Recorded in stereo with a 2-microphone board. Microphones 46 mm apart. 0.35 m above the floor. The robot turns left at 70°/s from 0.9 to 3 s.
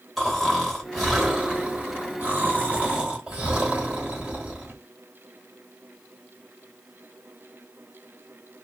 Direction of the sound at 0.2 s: 5° left.